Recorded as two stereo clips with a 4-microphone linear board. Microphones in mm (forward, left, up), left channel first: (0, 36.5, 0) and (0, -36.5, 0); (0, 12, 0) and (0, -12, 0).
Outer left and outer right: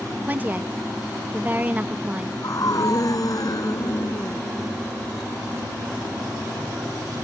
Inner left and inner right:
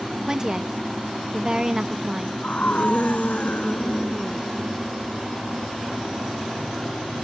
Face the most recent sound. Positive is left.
turn(degrees=55)  # may be behind; listen again after turning